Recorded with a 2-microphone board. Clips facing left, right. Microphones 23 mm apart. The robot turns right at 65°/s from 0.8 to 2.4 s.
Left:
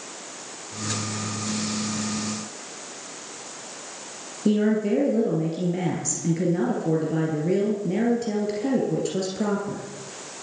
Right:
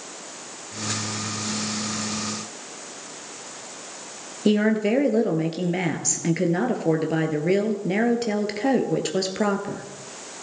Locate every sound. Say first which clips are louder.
4.5 s a woman speaking: right 1 dB; 45° right (ahead or behind), 2.5 m